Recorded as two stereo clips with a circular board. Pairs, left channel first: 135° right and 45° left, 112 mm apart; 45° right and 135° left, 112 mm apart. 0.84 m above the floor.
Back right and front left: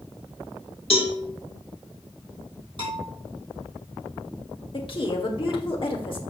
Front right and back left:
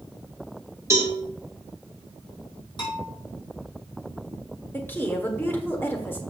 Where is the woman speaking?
115° right, 1.6 m.